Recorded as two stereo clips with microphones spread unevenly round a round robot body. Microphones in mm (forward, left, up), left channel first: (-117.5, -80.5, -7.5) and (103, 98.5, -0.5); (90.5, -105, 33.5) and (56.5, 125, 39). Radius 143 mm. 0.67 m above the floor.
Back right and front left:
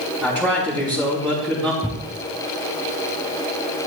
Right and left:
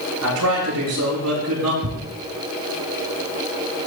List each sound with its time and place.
0.2 s a man speaking: 125° left, 5 m
1.8 s a thud: 130° left, 3 m